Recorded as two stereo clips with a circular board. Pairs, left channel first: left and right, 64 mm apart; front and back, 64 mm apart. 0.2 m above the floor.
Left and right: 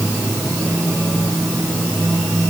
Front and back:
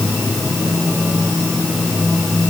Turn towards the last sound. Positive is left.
No sound to turn to.